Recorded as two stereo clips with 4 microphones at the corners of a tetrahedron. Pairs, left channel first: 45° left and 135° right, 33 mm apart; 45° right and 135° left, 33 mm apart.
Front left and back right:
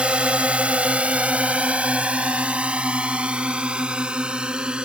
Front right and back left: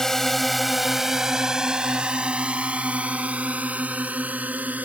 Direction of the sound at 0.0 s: 115° right.